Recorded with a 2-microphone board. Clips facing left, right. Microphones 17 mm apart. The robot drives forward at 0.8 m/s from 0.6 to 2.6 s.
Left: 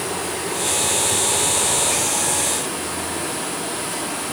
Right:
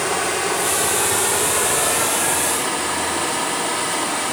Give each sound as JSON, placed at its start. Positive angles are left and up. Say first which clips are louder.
{"t": 0.0, "sound": "running water", "louder": "right 5 dB", "side_deg": -80, "distance_m": 5.0}